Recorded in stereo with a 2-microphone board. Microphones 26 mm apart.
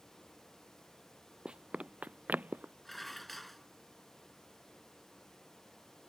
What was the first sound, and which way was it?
Running footsteps, 35° right (ahead or behind).